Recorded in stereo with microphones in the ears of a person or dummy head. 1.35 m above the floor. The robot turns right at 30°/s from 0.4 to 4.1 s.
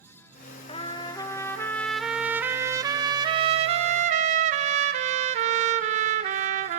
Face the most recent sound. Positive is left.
turn(degrees=-105)